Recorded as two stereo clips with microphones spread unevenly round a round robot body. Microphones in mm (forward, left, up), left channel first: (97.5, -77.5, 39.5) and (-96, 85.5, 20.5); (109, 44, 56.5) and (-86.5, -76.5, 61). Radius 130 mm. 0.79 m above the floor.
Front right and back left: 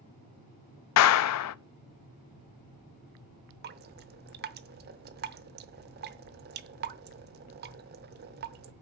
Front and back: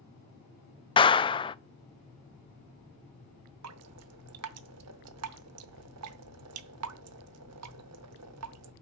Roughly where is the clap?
Ahead right.